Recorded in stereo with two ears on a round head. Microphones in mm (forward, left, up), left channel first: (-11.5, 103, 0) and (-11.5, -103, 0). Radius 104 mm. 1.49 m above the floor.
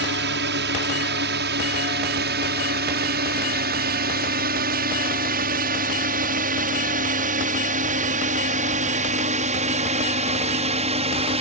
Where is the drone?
50° right (ahead or behind); by 11.4 s 25° right (ahead or behind).